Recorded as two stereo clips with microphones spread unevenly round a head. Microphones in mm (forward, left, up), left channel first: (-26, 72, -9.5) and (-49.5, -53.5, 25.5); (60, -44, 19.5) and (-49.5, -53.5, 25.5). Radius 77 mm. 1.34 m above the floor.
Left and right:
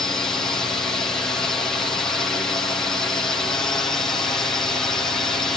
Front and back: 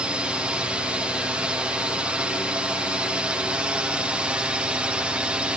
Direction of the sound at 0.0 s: 115° left.